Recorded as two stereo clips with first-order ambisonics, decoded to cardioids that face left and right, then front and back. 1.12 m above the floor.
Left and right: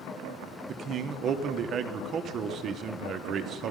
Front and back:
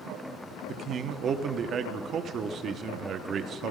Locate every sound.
0.7 s a man speaking: 130° right, 0.8 m